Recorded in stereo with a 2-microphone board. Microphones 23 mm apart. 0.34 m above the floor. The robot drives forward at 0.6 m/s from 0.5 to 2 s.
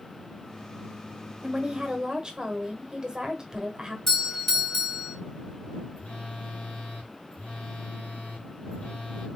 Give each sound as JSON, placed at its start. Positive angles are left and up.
{"t": 1.4, "sound": "a woman speaking", "side_deg": -25, "distance_m": 1.2}
{"t": 4.1, "sound": "a doorbell", "side_deg": 15, "distance_m": 2.0}
{"t": 6.0, "sound": "a phone buzzing", "side_deg": 55, "distance_m": 3.0}